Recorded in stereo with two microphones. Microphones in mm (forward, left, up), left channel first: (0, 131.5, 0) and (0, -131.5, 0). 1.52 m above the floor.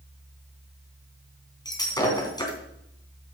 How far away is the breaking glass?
About 3 m.